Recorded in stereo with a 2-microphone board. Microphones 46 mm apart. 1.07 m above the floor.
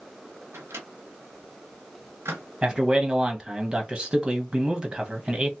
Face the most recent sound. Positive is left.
turn(degrees=-20)  # may be behind; listen again after turning